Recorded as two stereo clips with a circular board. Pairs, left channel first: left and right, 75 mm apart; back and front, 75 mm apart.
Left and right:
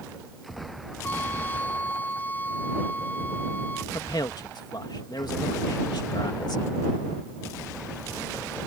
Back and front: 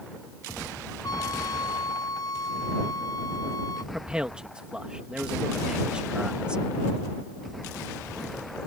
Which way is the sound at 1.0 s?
155° left.